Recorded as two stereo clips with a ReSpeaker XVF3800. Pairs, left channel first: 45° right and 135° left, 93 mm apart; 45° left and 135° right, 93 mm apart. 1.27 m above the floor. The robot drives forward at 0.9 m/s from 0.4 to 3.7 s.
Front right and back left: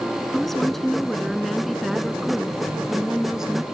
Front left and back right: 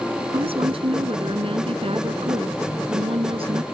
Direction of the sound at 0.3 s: 130° right.